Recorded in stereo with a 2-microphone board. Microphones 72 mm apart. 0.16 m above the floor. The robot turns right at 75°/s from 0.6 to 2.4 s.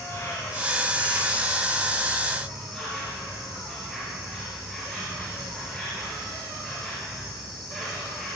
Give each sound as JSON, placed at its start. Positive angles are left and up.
{"t": 0.0, "sound": "an insect", "azimuth_deg": 40, "distance_m": 4.5}